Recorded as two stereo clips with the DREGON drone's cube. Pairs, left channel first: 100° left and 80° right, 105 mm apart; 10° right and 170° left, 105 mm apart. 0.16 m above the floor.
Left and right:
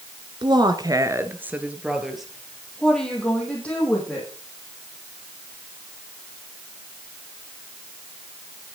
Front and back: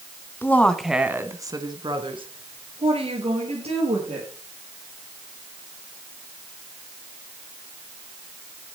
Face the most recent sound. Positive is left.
turn(degrees=175)